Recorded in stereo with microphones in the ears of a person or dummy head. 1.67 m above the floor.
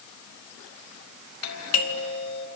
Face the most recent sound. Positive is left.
turn(degrees=85)